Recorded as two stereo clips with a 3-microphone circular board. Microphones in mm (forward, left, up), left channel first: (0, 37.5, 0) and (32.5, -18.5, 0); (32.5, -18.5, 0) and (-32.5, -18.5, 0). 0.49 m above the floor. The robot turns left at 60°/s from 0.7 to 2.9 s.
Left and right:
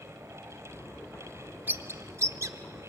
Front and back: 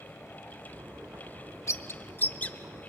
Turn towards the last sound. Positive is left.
turn(degrees=-85)